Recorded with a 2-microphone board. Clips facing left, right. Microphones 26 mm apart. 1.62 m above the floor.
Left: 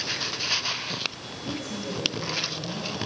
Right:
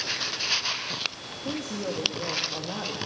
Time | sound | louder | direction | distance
1.4 | a woman speaking | right 2 dB | 75° right (ahead or behind) | 2.5 m